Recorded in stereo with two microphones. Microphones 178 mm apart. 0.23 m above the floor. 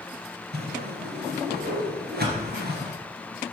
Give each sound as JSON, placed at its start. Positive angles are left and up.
{"t": 0.5, "sound": "a whoosh", "side_deg": -65, "distance_m": 3.0}